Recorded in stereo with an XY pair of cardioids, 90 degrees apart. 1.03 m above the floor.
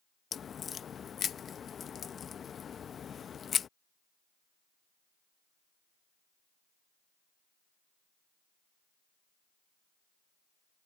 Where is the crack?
55° left.